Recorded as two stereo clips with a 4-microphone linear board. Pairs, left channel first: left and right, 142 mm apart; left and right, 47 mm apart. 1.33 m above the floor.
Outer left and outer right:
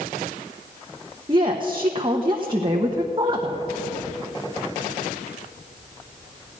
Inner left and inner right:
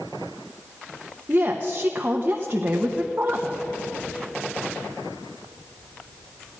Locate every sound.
1.3 s a woman speaking: 30° right (ahead or behind), 1.0 m